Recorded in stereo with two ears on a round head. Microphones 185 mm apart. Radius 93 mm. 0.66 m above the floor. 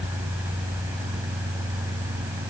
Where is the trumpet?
No trumpet in this recording.